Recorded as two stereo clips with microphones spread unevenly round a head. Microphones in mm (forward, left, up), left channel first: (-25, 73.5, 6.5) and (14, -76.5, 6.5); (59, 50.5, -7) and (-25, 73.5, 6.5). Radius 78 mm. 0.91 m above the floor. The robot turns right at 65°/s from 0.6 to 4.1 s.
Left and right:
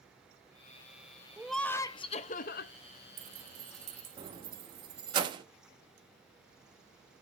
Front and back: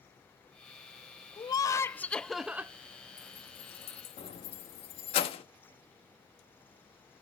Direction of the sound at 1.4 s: 5° left.